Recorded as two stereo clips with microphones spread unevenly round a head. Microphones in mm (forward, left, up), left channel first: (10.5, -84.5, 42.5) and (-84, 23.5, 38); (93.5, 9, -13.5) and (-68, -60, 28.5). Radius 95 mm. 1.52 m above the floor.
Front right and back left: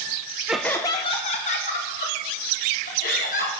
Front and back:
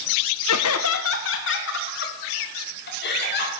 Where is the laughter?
45° left, 0.9 m; by 3.5 s 10° right, 4.5 m.